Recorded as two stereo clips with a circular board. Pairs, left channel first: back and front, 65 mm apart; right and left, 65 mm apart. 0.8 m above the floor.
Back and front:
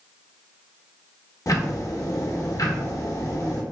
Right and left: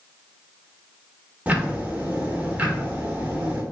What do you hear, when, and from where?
1.5 s ticking: 155° left, 0.7 m